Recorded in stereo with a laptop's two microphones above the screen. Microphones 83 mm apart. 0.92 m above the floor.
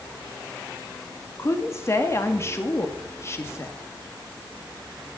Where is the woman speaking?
35° left (ahead or behind), 1.7 m.